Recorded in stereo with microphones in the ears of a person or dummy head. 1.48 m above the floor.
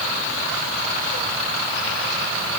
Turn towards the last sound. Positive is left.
No sound to turn to.